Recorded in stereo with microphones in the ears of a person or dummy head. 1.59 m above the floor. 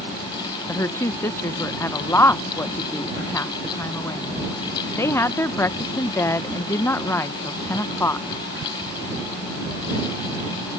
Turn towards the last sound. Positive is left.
turn(degrees=10)  # may be behind; listen again after turning